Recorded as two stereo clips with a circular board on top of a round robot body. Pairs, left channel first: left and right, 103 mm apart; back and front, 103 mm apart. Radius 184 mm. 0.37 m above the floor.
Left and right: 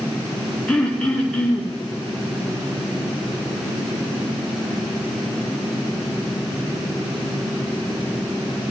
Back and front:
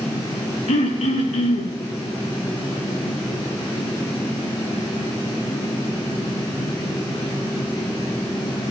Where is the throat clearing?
170° left, 2.5 m.